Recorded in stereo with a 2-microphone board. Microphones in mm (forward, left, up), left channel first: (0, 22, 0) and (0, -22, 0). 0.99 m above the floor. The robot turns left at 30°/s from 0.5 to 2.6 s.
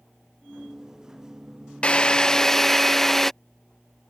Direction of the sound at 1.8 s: 25° left (ahead or behind).